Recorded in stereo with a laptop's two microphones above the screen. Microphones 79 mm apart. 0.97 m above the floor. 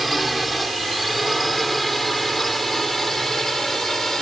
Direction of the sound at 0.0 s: Centre (ahead or behind).